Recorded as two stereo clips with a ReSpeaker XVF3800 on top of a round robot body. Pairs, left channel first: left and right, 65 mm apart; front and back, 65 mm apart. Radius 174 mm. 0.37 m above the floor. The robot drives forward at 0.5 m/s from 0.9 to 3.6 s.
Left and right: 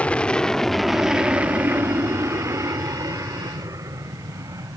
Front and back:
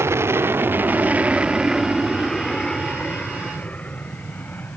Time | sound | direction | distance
0.0 | an aircraft | 155° left | ?